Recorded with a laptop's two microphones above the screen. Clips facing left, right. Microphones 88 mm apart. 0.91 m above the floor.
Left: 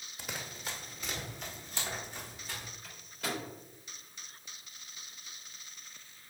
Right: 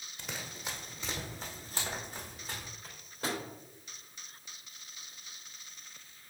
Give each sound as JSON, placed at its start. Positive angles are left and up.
{"t": 0.2, "sound": "running footsteps", "side_deg": 5, "distance_m": 1.5}
{"t": 2.8, "sound": "a microwave", "side_deg": -40, "distance_m": 3.5}